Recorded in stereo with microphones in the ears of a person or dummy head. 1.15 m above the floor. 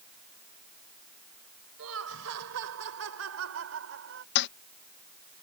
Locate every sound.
1.8 s laughter: 80° right; by 4.2 s 65° right (ahead or behind)
4.3 s a toilet flushing: 60° left (ahead or behind)